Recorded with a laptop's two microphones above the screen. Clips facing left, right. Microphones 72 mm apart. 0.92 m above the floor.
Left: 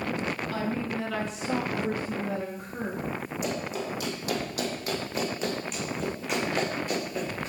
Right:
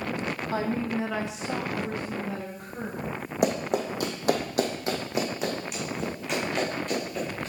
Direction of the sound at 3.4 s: 65° right (ahead or behind).